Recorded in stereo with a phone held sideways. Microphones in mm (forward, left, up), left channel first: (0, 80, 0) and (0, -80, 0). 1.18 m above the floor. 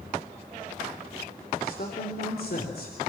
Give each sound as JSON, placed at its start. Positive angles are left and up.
{"t": 1.6, "sound": "a man speaking", "side_deg": 70, "distance_m": 3.5}